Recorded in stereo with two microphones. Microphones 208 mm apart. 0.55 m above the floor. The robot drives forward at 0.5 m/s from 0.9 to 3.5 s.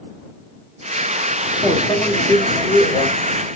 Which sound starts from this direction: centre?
A microwave, at 1.6 s.